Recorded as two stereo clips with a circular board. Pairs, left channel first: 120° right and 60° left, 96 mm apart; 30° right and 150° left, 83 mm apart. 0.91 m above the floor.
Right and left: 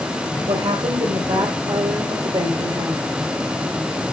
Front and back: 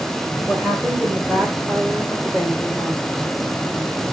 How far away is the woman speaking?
About 4 m.